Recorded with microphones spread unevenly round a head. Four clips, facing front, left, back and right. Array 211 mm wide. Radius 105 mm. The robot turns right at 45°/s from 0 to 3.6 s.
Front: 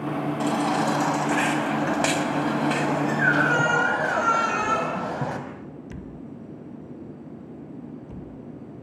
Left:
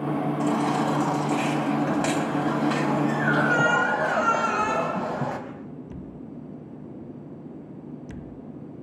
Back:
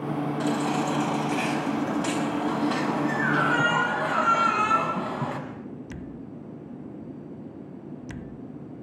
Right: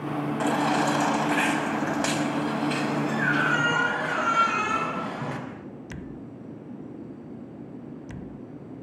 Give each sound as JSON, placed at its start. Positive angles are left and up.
{"t": 0.4, "sound": "a baby crying", "azimuth_deg": -90, "distance_m": 5.5}